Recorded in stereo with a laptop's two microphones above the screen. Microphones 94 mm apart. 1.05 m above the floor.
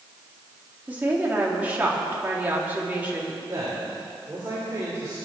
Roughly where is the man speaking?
Right.